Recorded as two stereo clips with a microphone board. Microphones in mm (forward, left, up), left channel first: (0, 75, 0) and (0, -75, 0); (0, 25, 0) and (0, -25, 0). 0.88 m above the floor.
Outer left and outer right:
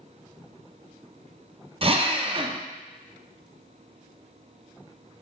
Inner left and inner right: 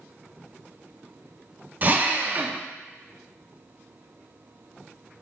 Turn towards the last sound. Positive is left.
turn(degrees=-40)  # may be behind; listen again after turning